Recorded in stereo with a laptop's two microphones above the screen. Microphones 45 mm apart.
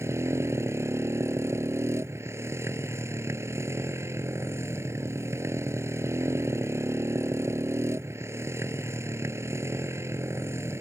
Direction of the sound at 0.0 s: 85° right.